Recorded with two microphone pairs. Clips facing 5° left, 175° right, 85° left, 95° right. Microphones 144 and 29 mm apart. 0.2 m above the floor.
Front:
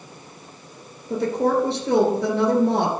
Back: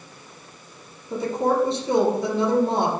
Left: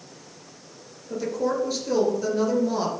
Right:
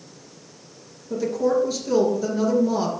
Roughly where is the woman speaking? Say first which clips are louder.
Front 2 dB, right 4 dB; ahead.